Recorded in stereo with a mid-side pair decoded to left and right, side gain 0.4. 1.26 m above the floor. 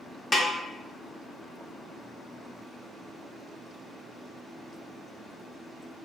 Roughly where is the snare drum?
Ahead left.